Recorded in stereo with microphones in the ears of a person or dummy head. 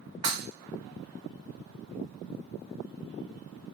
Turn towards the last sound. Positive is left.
turn(degrees=-20)  # may be behind; listen again after turning